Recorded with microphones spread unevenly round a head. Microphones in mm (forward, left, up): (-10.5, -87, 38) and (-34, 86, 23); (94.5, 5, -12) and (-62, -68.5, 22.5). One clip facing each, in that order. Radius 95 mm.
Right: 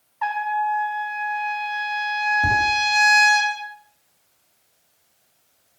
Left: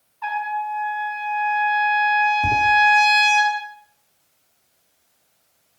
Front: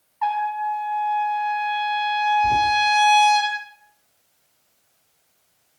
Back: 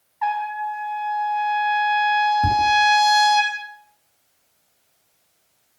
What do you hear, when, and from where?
0.2 s a trumpet: 70° right, 7 m
2.4 s tapping: 155° right, 8 m